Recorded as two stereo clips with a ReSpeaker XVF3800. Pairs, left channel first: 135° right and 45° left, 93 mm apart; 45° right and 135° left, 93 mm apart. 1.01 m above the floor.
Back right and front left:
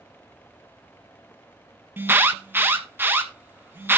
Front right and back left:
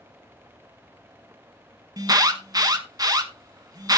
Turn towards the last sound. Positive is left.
turn(degrees=105)